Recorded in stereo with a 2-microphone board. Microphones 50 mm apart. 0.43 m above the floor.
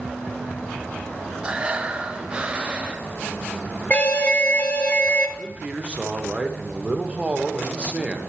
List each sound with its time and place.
1.4 s breathing: 25° right (ahead or behind), 0.7 m
3.9 s an alarm: 30° left (ahead or behind), 0.9 m
5.4 s a man speaking: 25° right (ahead or behind), 0.9 m